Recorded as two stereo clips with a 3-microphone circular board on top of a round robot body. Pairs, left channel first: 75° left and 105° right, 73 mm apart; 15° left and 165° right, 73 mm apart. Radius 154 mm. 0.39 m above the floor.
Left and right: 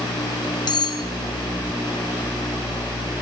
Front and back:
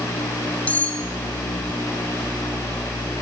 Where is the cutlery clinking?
85° left, 1.6 m.